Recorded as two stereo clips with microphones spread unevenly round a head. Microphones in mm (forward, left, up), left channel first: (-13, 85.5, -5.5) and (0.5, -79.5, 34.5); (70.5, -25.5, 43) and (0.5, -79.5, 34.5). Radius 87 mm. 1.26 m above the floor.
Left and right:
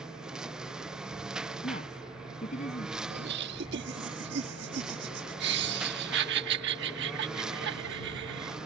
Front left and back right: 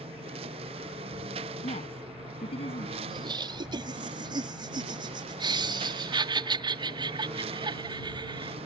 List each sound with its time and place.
0.0 s a lawn mower: 170° right
1.6 s a woman speaking: 45° left
3.1 s laughter: 110° right